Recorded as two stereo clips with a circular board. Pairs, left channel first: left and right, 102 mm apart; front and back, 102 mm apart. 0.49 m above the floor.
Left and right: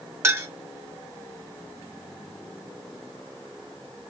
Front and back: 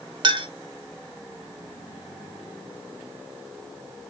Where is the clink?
150° right, 1.0 m.